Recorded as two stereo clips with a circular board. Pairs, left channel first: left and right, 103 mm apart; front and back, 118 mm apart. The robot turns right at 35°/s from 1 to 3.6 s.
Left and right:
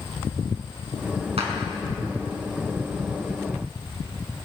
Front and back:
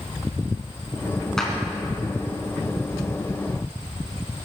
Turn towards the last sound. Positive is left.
turn(degrees=-10)